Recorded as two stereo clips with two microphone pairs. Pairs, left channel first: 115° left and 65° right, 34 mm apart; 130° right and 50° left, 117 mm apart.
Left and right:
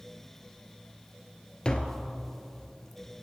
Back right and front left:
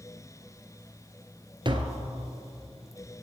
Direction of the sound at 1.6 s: 70° left.